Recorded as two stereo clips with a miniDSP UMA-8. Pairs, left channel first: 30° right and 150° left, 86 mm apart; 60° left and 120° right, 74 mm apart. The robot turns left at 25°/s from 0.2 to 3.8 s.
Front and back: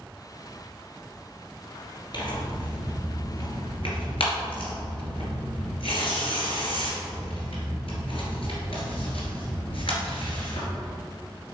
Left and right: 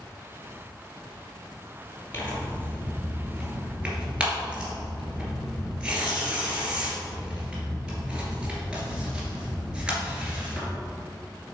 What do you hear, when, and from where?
2.1 s tearing paper: straight ahead, 2 m; by 10.7 s 40° right, 2 m